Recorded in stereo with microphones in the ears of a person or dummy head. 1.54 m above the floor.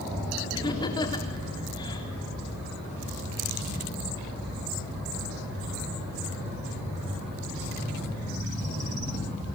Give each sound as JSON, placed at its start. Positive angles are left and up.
{"t": 0.5, "sound": "laughter", "side_deg": 20, "distance_m": 4.0}